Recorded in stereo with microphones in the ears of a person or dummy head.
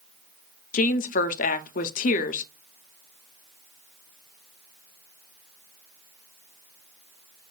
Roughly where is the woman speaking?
Left.